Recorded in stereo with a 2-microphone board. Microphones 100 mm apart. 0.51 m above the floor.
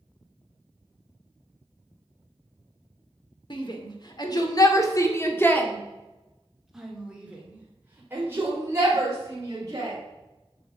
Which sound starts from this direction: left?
A shout, at 3.5 s.